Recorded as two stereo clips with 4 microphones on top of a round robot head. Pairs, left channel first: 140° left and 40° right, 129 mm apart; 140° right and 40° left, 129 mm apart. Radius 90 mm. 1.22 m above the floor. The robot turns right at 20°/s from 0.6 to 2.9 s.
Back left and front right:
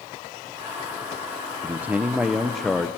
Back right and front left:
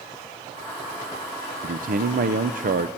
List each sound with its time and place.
1.6 s a man speaking: 30° left, 0.7 m; by 2.9 s 55° left, 0.7 m